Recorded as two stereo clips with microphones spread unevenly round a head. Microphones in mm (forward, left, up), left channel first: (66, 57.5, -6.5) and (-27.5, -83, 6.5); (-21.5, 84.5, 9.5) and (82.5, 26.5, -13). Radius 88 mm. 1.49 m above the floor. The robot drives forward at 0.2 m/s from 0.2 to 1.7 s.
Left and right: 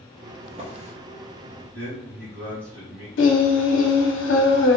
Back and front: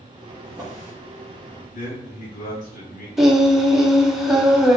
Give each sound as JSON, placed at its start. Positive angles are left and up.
{"t": 0.4, "sound": "a drawer", "azimuth_deg": -90, "distance_m": 0.7}
{"t": 1.7, "sound": "a man speaking", "azimuth_deg": 155, "distance_m": 1.2}
{"t": 3.2, "sound": "singing", "azimuth_deg": 60, "distance_m": 0.6}